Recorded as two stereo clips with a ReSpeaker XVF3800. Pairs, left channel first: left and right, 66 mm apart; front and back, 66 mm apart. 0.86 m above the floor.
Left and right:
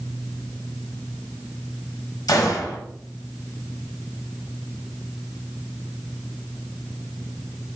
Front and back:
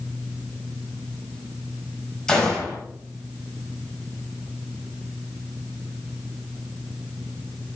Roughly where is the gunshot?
Left.